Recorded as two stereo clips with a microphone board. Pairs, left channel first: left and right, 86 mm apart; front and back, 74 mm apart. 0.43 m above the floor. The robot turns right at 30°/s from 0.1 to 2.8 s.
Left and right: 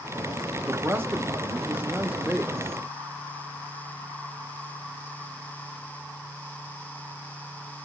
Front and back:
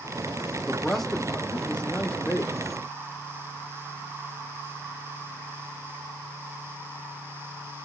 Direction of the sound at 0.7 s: 90° right.